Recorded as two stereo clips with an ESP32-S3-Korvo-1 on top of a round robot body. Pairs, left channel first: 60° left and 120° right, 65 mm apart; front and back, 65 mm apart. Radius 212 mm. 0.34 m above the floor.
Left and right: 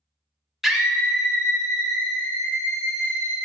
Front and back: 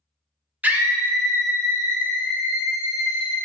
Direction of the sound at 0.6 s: 160° left.